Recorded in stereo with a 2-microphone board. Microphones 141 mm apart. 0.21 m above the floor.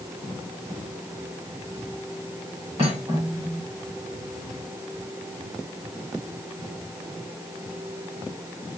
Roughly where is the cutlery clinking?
Right.